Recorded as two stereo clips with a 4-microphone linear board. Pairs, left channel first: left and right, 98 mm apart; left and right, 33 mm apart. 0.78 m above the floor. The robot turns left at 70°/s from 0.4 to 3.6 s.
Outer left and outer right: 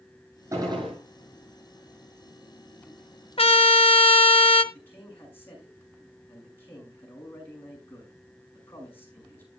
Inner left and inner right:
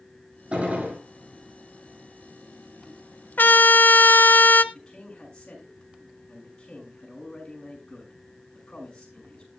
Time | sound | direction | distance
0.5 | a gunshot | 30° right | 9 m
3.4 | a trumpet | 70° left (ahead or behind) | 1.0 m
4.7 | a man speaking | 20° left (ahead or behind) | 6.5 m